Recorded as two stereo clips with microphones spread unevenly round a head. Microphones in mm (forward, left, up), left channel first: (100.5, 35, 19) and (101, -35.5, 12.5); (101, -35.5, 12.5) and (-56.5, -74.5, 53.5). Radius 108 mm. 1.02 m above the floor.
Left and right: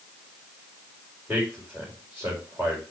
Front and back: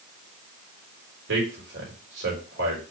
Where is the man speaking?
170° right, 4.5 m.